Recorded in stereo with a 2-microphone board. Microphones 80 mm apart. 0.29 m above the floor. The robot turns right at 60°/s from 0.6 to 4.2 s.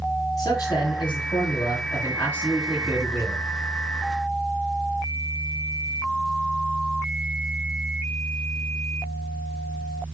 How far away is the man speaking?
About 6 m.